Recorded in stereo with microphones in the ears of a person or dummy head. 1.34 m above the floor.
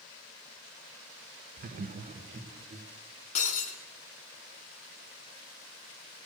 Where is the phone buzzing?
I don't hear a phone buzzing.